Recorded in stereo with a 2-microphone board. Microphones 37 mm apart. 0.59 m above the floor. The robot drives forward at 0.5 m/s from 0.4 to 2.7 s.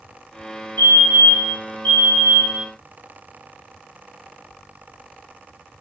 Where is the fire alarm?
65° left (ahead or behind), 4.5 m.